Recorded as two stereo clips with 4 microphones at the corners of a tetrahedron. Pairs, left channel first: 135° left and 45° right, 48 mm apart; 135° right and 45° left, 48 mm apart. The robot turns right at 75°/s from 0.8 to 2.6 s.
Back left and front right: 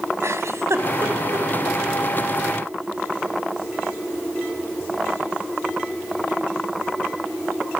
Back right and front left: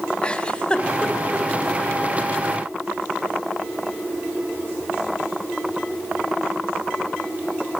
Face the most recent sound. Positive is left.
turn(degrees=70)